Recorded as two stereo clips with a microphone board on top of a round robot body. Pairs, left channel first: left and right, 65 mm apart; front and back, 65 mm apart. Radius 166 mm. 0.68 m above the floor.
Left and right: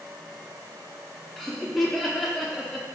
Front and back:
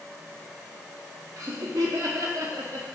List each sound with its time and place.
1.4 s laughter: 175° left, 0.6 m